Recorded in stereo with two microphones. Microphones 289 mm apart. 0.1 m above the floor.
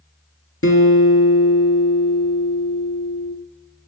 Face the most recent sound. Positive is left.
turn(degrees=45)  # may be behind; listen again after turning